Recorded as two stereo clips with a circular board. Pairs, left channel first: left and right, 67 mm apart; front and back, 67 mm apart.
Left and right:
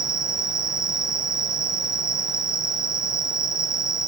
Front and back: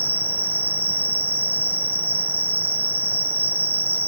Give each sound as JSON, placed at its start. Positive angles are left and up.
{"t": 0.0, "sound": "an insect", "azimuth_deg": 125, "distance_m": 1.3}